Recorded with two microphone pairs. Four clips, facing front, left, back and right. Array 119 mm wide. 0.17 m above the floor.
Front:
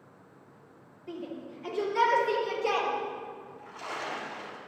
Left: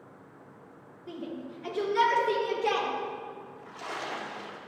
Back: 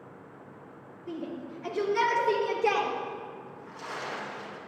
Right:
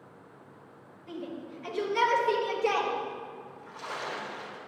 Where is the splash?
85° left, 3 m.